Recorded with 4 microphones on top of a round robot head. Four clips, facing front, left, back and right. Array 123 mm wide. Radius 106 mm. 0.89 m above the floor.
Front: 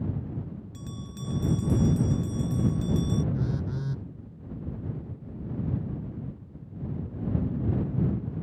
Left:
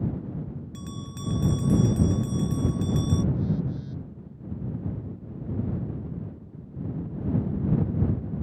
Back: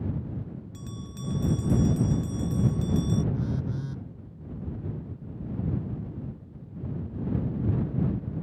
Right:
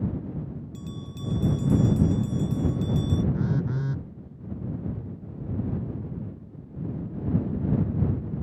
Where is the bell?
90° left.